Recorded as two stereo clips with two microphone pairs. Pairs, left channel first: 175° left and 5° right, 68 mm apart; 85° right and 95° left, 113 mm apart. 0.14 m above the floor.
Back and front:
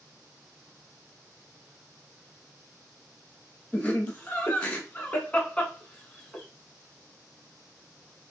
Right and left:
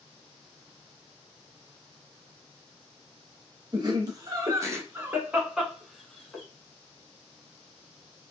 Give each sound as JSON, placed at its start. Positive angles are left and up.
{"t": 3.7, "sound": "laughter", "azimuth_deg": 115, "distance_m": 1.7}